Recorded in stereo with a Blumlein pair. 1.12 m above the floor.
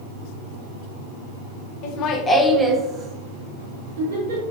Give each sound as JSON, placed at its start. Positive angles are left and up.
{"t": 1.8, "sound": "laughter", "azimuth_deg": 40, "distance_m": 0.6}